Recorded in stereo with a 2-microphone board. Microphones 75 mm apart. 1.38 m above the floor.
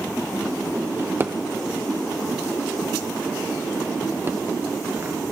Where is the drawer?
30° right (ahead or behind), 0.6 m.